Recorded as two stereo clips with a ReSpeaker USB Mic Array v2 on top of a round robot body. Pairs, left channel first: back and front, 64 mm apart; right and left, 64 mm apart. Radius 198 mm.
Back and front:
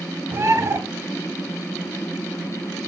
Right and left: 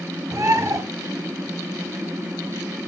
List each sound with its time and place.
0.3 s a bird: 50° left, 2.5 m